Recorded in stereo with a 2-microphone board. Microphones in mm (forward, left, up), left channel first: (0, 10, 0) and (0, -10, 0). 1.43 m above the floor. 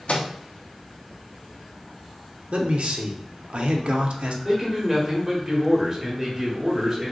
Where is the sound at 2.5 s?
65° right (ahead or behind), 0.6 m.